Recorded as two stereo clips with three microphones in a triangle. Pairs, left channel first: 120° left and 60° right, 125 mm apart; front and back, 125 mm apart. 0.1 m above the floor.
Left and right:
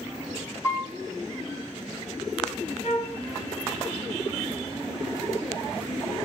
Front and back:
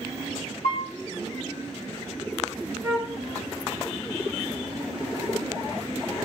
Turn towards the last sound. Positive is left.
turn(degrees=115)